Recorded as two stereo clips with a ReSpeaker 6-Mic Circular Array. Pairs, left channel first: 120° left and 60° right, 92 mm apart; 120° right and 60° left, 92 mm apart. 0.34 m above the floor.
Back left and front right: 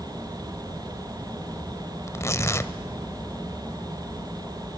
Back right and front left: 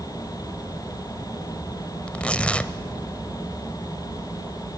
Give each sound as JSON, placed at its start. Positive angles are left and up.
{"t": 2.1, "sound": "tearing paper", "azimuth_deg": 165, "distance_m": 0.8}